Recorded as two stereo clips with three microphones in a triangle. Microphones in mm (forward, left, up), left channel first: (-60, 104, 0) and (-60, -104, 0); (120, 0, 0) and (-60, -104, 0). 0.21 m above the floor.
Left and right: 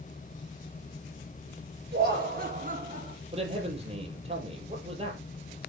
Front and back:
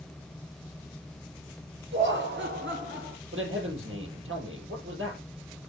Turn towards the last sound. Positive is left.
turn(degrees=-150)